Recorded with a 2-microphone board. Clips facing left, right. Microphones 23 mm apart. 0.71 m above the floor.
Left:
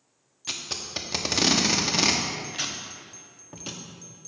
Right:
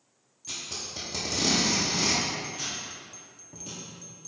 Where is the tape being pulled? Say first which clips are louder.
Left 4 dB; 55° left (ahead or behind), 0.9 m.